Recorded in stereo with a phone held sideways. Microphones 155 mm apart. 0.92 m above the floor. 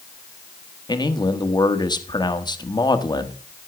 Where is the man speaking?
25° left (ahead or behind), 1.3 m.